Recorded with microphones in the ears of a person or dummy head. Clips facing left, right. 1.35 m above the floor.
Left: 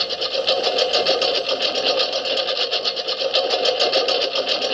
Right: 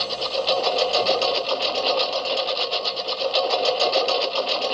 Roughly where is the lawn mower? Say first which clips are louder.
Left 2 dB; left.